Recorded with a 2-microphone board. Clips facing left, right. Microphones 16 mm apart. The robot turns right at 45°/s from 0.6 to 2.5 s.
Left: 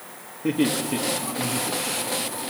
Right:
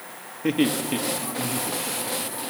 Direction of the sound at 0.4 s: 45° right (ahead or behind).